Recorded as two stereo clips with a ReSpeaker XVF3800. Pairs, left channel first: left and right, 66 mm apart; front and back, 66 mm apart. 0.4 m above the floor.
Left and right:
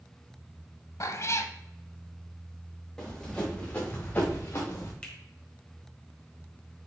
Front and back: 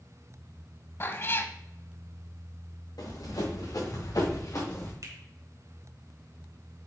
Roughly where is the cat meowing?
Ahead left.